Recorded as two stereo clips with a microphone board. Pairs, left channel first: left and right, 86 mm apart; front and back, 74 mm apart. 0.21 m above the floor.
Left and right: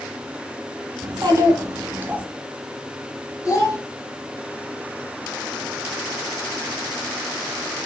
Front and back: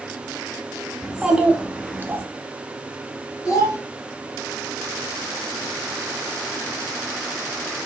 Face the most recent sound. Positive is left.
turn(degrees=45)